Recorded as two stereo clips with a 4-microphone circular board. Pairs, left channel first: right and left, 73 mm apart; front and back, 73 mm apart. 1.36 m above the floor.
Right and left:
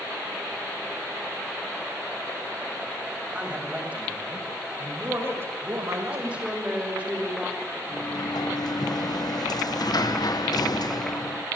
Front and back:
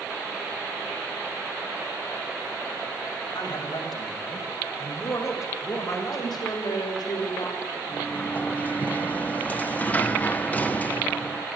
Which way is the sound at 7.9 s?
70° right.